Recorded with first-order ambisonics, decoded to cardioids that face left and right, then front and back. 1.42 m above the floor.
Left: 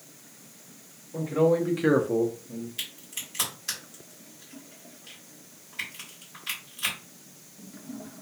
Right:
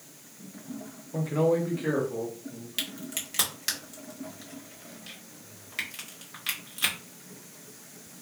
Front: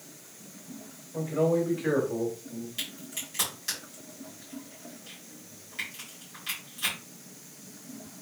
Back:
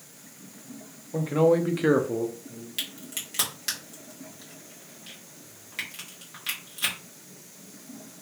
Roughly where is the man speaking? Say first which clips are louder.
Left 2 dB, back 4 dB; behind.